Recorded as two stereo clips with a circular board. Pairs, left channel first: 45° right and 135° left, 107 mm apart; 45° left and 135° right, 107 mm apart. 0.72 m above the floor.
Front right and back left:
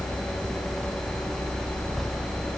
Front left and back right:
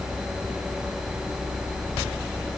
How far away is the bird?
I don't hear a bird.